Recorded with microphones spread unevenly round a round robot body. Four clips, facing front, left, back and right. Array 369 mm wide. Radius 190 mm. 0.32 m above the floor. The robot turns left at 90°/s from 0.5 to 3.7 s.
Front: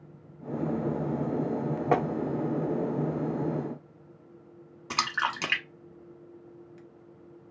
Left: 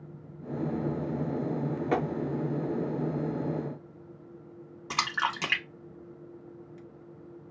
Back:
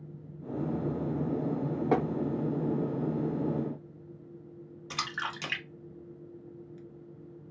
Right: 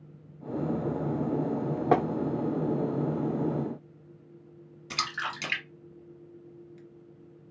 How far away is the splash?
About 1.5 m.